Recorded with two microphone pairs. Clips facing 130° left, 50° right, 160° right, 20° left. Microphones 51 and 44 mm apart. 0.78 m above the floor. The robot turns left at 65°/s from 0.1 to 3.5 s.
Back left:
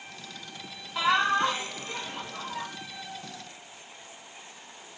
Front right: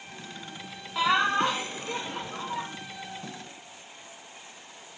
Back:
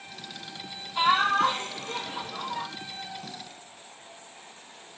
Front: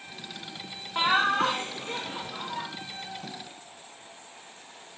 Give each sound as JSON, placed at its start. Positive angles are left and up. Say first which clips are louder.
{"t": 0.9, "sound": "laughter", "louder": "even, back 1 dB", "azimuth_deg": 30, "distance_m": 0.5}